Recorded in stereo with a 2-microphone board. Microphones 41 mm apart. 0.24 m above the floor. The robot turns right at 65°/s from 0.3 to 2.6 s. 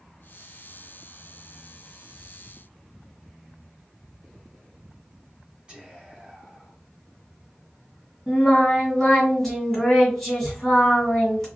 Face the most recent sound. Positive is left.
turn(degrees=5)  # may be behind; listen again after turning